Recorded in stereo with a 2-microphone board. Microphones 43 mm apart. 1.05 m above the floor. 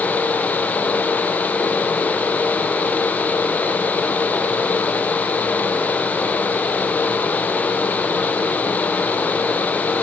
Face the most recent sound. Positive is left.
No sound to turn to.